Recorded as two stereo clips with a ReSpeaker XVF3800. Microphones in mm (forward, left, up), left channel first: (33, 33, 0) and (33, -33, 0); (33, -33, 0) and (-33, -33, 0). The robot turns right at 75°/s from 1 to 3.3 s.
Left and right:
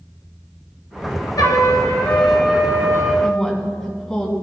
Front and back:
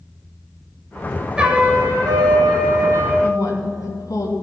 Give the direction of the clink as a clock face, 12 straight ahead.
No clink in this recording.